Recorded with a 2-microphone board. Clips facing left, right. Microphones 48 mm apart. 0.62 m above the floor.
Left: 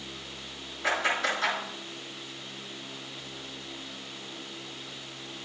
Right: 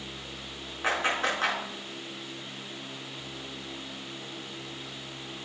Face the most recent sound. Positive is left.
turn(degrees=-40)  # may be behind; listen again after turning